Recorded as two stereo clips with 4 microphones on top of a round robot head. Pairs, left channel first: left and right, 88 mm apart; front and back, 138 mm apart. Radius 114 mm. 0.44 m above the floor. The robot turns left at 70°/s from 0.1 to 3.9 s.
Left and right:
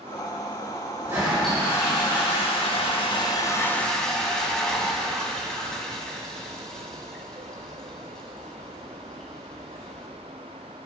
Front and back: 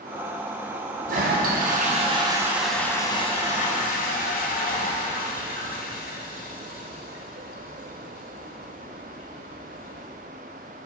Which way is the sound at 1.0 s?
155° right.